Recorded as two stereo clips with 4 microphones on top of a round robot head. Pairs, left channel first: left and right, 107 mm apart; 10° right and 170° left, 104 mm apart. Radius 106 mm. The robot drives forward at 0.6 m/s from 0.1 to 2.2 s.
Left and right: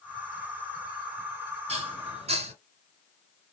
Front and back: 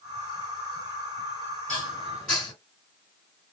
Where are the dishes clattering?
85° right, 1.6 m; by 2.5 s 95° right, 1.6 m.